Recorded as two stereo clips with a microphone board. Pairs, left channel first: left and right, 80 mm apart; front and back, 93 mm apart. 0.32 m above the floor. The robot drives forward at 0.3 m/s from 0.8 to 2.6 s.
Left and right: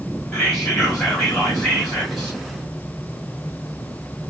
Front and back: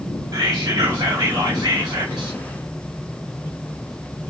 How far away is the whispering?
About 1.7 m.